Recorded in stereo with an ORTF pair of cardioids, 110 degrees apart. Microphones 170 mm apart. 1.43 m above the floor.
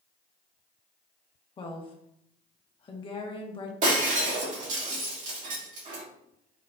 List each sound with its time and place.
1.6 s a woman speaking: 30° left, 1.2 m
3.8 s breaking glass: 50° right, 1.9 m